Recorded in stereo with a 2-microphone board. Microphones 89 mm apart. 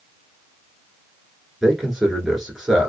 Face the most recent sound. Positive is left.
turn(degrees=-5)  # may be behind; listen again after turning